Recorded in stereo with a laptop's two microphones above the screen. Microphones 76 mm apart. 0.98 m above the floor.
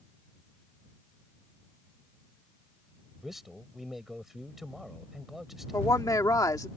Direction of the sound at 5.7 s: 50° left (ahead or behind).